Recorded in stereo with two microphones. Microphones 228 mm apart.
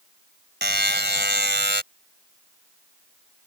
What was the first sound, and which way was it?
A buzzer, 50° right (ahead or behind).